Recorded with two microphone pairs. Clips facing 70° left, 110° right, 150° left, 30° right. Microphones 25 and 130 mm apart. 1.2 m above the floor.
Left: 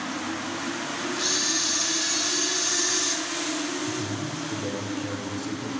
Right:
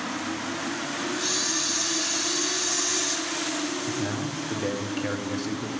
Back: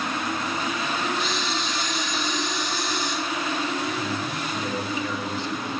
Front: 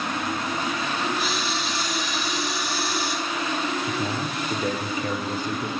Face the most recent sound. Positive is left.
turn(degrees=-60)